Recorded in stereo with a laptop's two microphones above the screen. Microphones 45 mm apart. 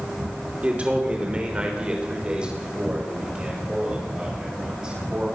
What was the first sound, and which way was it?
A man speaking, 30° right (ahead or behind).